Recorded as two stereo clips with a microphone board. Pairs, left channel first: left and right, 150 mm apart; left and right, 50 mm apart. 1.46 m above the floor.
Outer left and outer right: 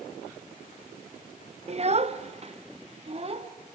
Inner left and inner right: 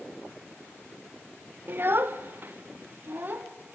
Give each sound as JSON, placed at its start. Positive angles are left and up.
{"t": 1.7, "sound": "a child speaking", "side_deg": -45, "distance_m": 0.9}